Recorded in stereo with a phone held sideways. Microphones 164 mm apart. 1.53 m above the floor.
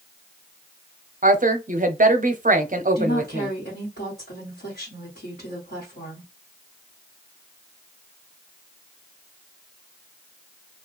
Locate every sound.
1.2 s a woman speaking: 50° right (ahead or behind), 0.5 m
3.0 s a woman speaking: 70° left (ahead or behind), 1.3 m